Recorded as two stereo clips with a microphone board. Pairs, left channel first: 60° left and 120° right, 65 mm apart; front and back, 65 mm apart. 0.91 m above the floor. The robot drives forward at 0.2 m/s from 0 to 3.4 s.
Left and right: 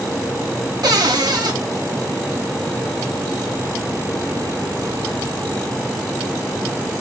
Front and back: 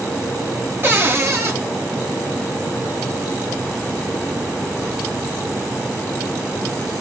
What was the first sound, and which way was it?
A cupboard door, 120° right.